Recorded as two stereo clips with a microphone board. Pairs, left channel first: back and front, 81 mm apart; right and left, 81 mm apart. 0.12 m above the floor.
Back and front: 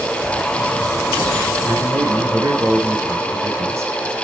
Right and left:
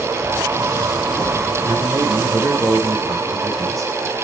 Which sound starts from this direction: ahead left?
A man speaking, at 1.6 s.